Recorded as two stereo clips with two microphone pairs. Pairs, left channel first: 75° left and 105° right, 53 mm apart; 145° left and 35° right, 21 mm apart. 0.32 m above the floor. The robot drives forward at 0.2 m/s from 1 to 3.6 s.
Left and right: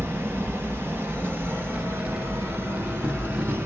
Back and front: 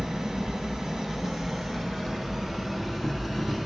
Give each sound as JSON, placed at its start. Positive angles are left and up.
{"t": 0.0, "sound": "an insect", "azimuth_deg": -100, "distance_m": 1.5}